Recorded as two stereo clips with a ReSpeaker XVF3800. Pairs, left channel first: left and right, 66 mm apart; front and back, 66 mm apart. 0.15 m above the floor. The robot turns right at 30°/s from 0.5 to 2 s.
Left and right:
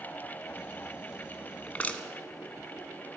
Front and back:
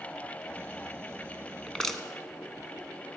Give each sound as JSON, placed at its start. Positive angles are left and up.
{"t": 1.7, "sound": "crushing", "azimuth_deg": 60, "distance_m": 1.1}